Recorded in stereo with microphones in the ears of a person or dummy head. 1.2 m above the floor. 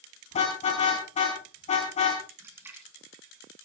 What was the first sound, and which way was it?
A car horn, 30° left (ahead or behind).